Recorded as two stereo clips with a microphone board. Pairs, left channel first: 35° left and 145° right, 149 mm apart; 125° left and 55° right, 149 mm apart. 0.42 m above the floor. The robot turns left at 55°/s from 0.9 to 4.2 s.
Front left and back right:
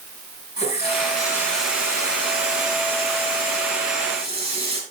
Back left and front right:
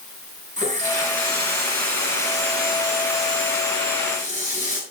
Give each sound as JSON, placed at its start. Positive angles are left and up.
{"t": 0.6, "sound": "a running tap", "azimuth_deg": -15, "distance_m": 5.5}